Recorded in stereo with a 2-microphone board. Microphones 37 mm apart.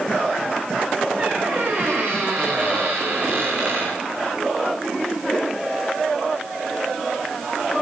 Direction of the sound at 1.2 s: 25° right (ahead or behind).